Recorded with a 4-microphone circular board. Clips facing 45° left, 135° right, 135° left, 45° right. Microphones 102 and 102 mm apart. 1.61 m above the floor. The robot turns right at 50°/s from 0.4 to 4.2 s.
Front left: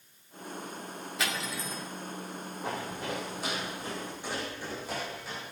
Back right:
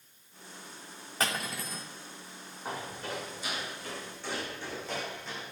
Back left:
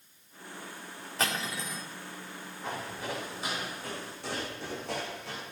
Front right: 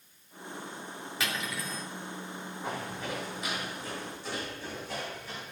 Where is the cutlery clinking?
Straight behind, 2.5 m; by 1.9 s 145° right, 2.5 m.